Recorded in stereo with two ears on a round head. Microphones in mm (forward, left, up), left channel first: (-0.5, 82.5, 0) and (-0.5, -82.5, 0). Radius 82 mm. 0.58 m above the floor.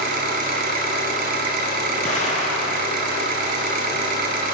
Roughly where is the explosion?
Left.